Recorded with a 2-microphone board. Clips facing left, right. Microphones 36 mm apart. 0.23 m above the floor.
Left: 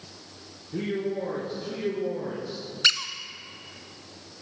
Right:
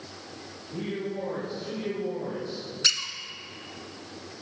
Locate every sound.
0.7 s a man speaking: 45° left (ahead or behind), 4 m; by 2.6 s 40° left (ahead or behind), 3 m
2.8 s a squeak: 30° left (ahead or behind), 0.9 m